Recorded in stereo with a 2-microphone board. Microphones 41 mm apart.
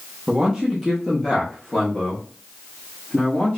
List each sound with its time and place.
0.3 s a man speaking: 15° right (ahead or behind), 0.7 m; by 3.6 s 20° left (ahead or behind), 1.9 m